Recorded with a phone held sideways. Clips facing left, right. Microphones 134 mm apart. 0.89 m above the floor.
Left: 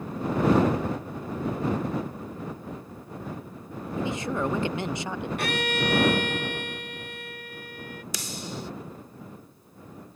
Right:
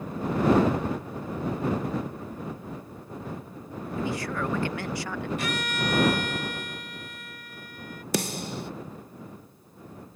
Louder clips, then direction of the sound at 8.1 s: Right 8 dB; 60° right (ahead or behind).